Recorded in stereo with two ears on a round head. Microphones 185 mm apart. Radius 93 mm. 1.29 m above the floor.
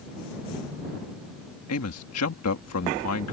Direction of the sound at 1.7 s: 80° left.